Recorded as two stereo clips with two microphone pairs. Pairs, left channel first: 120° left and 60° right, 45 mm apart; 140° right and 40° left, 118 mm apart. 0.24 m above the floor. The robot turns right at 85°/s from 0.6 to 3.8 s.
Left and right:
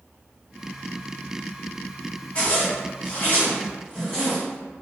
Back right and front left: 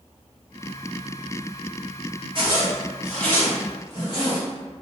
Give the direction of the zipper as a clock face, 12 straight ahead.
10 o'clock.